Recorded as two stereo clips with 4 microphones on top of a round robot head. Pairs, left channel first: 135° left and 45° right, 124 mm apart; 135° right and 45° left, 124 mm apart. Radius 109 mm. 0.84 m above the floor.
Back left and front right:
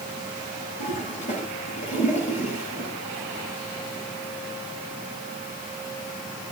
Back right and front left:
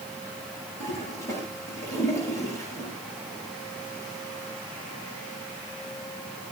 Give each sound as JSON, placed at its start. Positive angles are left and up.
{"t": 0.8, "sound": "a toilet flushing", "azimuth_deg": 160, "distance_m": 8.0}